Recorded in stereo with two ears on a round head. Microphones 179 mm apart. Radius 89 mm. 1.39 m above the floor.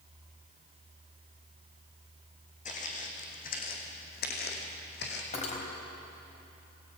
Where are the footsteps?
40° left (ahead or behind), 4.5 m; by 5.2 s 60° left (ahead or behind), 4 m.